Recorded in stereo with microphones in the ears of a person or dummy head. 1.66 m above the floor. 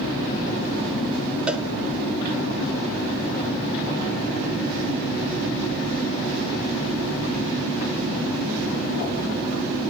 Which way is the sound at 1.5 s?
5° right (ahead or behind).